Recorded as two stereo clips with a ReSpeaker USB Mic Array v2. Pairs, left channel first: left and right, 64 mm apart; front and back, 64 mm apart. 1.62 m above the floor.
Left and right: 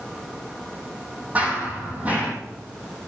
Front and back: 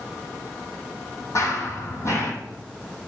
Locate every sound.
1.4 s running footsteps: 30° right, 3 m